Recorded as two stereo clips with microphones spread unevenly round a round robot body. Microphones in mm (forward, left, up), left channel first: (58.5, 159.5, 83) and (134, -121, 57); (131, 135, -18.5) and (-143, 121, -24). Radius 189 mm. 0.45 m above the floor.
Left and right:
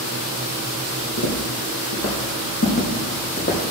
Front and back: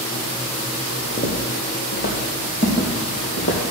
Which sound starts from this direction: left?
Footsteps, at 1.2 s.